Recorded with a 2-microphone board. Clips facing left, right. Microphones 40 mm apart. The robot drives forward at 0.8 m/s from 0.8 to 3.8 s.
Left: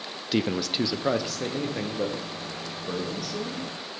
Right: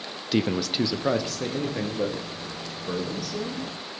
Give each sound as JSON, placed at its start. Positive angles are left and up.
{"t": 0.3, "sound": "a man speaking", "side_deg": 0, "distance_m": 0.6}